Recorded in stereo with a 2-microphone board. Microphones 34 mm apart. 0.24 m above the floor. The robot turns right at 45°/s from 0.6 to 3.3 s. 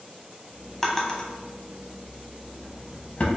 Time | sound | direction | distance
0.8 | a drawer | 10° left (ahead or behind) | 0.7 m